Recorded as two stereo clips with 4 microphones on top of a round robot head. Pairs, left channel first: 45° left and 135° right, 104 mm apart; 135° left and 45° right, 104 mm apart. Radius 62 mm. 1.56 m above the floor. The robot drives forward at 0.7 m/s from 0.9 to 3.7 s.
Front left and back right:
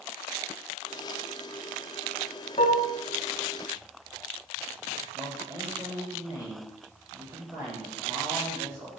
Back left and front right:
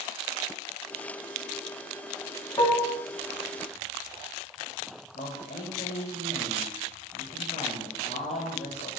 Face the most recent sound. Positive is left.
turn(degrees=160)